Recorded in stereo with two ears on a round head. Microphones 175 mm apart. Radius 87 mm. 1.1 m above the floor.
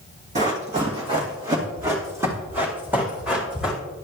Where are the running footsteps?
40° right (ahead or behind), 2.5 m; by 3.8 s 5° right (ahead or behind), 4 m.